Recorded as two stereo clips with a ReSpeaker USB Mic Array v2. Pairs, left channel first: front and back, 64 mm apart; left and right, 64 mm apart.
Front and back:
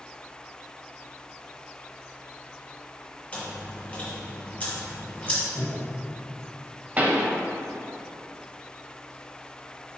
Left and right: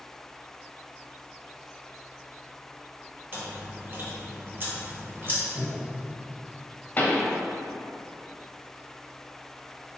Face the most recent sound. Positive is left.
turn(degrees=130)